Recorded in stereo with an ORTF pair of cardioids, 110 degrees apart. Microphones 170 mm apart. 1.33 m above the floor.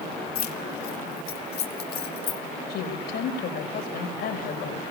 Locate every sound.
0.3 s keys jangling: 55° left, 4 m; by 2.4 s 70° left, 3 m
2.7 s a woman speaking: 70° left, 5.5 m